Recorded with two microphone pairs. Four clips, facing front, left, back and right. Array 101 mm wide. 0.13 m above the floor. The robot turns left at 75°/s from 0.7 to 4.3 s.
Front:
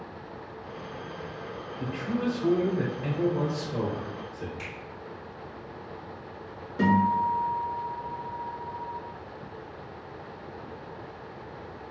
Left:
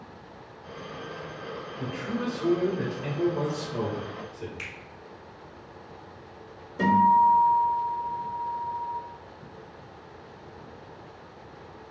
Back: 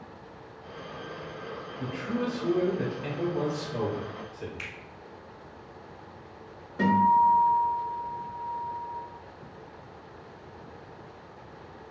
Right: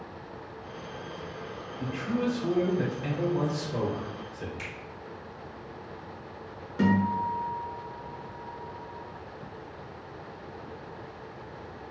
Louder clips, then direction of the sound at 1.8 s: Right 2 dB, front 1 dB; 120° left.